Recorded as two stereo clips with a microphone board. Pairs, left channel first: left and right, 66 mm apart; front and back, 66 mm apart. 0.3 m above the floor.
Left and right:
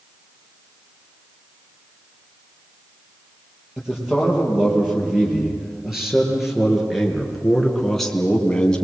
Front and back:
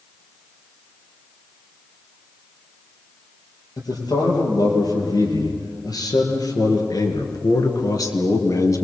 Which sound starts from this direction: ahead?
A man speaking, at 3.8 s.